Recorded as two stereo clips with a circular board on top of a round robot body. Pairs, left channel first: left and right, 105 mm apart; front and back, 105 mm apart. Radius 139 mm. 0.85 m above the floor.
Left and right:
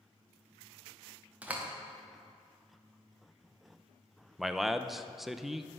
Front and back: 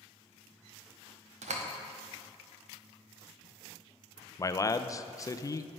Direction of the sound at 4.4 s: 5° right.